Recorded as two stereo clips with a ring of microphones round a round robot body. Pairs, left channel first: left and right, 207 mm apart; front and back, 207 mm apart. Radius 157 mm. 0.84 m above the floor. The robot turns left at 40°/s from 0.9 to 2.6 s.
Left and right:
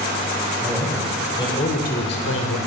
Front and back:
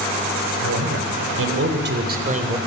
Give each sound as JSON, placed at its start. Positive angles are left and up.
{"t": 0.6, "sound": "a man speaking", "azimuth_deg": -175, "distance_m": 3.5}